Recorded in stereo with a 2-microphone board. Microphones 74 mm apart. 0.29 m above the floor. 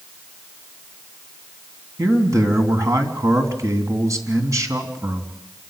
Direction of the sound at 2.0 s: 50° right (ahead or behind).